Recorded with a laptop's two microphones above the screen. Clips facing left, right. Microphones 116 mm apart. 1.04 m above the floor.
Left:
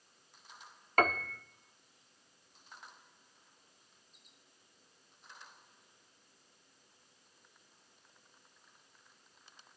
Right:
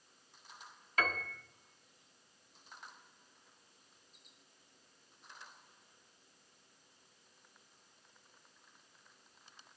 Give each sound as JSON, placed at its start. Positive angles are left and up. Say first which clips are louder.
{"t": 1.0, "sound": "a piano", "louder": "left 7 dB", "side_deg": 50, "distance_m": 0.7}